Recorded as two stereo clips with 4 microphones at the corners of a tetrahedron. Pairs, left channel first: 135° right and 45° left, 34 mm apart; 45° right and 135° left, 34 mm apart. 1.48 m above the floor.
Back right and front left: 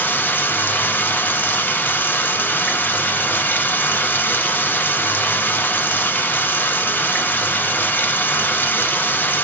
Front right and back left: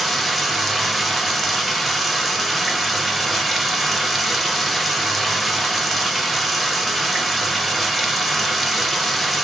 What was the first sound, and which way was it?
Running water, 135° right.